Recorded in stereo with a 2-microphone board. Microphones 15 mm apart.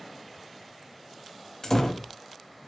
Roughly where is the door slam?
Left.